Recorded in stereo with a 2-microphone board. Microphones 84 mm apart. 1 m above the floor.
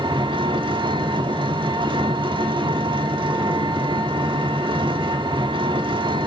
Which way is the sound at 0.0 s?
70° right (ahead or behind).